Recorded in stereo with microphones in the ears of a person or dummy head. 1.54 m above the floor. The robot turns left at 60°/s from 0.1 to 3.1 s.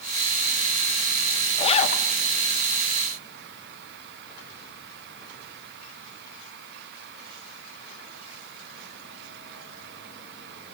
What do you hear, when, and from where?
1.6 s a zipper: 30° left (ahead or behind), 1.0 m; by 2.1 s 50° left (ahead or behind), 1.0 m